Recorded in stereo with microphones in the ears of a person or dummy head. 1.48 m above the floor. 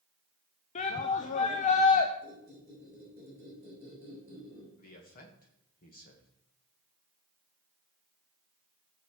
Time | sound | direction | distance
0.8 | a shout | 40° left (ahead or behind) | 0.7 m
2.2 | a squeak | 15° left (ahead or behind) | 5 m
4.8 | a man speaking | 45° left (ahead or behind) | 1.7 m